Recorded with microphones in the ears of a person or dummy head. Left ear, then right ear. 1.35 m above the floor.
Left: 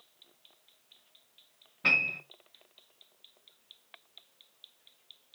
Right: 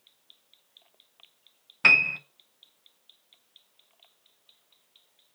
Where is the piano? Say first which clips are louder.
Right 7 dB; 50° right (ahead or behind), 0.6 m.